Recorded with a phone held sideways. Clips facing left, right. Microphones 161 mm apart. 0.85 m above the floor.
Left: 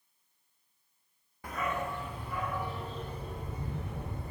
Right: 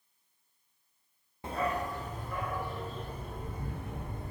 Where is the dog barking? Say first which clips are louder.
Right 2 dB; 25° right (ahead or behind), 0.5 m; by 4.3 s 50° right (ahead or behind), 3.5 m.